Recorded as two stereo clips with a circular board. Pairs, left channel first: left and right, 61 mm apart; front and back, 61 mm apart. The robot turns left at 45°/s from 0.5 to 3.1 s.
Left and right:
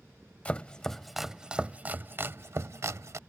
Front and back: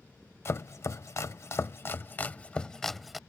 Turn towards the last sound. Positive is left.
turn(degrees=-90)